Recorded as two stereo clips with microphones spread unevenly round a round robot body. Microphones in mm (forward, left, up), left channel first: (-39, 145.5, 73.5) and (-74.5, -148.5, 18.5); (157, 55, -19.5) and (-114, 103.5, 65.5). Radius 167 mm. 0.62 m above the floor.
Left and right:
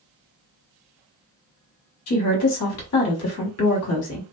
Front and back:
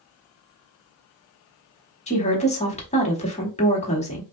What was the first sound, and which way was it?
A woman speaking, 45° left.